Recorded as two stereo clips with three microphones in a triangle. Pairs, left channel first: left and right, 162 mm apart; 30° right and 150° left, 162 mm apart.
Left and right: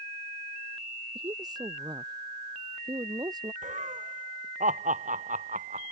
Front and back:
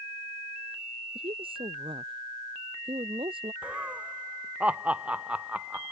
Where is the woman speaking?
155° right.